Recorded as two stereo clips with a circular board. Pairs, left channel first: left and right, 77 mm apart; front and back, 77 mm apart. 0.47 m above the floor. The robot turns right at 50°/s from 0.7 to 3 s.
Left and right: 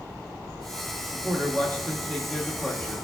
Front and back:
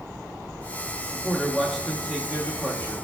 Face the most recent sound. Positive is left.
turn(degrees=155)